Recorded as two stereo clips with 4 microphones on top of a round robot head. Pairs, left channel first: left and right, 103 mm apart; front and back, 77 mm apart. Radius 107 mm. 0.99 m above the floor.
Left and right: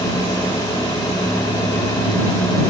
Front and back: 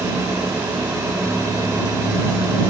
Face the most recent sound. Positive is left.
No sound to turn to.